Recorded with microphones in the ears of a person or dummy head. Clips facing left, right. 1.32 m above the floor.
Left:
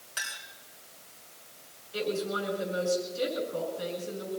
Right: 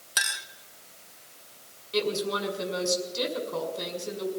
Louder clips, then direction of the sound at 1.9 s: Right 3 dB; 85° right.